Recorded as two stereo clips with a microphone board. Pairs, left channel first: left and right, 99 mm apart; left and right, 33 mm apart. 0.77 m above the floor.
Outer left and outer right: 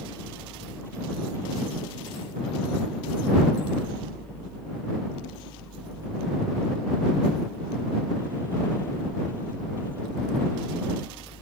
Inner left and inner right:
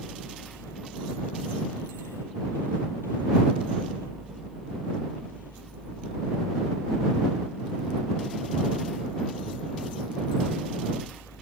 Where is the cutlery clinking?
I don't hear cutlery clinking.